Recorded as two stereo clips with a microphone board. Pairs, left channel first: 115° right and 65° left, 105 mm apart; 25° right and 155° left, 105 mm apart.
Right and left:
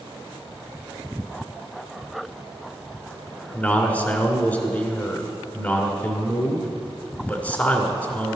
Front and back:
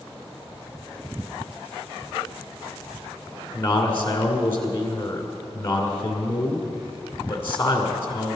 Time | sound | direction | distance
3.5 | a man speaking | 60° right | 1.9 m